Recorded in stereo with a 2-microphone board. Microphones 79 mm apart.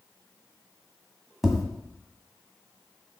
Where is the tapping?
5° right (ahead or behind), 1.3 m.